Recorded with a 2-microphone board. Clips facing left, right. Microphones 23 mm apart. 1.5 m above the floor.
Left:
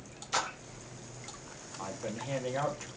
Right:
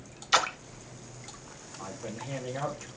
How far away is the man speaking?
About 2.5 m.